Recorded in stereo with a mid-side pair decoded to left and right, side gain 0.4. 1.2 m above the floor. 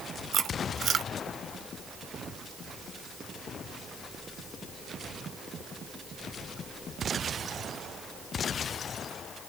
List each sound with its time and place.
0.3 s chewing: 65° right, 0.9 m